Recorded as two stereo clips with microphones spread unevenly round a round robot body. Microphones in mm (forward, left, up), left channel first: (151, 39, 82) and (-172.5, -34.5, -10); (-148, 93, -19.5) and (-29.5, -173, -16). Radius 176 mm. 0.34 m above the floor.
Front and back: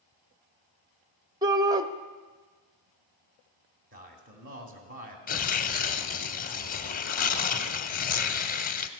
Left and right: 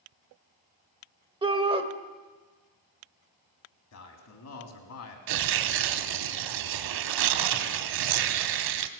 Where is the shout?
125° right, 1.0 m.